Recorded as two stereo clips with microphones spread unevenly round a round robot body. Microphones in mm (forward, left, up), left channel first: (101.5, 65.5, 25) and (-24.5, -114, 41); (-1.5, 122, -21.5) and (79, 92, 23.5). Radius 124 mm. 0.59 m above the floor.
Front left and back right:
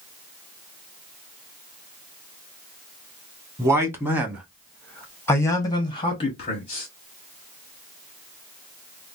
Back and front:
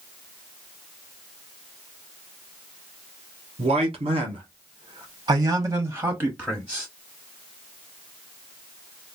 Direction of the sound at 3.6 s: 50° right.